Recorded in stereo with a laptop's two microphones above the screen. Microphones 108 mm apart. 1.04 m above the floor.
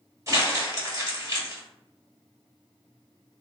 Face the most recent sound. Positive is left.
turn(degrees=-30)  # may be behind; listen again after turning